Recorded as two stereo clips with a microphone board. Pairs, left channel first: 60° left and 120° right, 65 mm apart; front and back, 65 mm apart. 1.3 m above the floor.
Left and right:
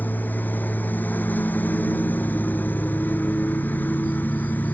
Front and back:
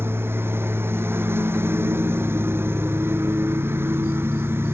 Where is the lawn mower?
125° left.